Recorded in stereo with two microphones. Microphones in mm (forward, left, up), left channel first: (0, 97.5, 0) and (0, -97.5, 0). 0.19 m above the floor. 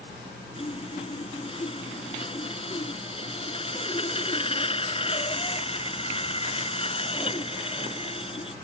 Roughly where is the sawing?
Left.